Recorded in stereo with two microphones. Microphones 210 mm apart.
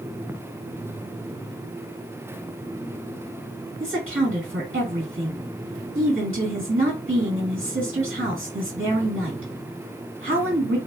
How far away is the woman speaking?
About 1.8 m.